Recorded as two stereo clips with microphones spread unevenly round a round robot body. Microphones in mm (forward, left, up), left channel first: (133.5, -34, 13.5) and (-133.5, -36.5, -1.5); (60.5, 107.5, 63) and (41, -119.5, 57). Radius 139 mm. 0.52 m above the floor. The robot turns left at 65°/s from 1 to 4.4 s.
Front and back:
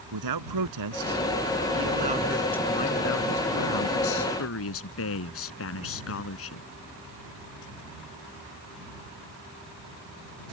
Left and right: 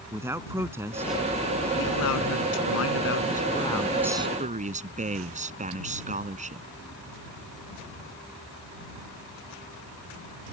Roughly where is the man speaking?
Behind.